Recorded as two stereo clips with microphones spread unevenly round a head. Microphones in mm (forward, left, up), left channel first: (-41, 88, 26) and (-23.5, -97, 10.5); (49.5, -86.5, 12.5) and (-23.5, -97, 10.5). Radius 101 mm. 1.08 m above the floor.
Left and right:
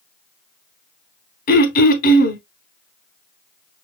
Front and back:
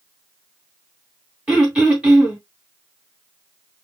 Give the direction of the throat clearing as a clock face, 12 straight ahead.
8 o'clock.